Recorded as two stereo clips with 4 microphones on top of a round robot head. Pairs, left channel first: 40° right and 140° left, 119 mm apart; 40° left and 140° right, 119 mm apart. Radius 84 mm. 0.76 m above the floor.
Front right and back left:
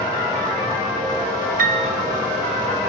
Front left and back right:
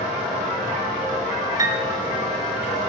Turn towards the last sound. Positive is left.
turn(degrees=155)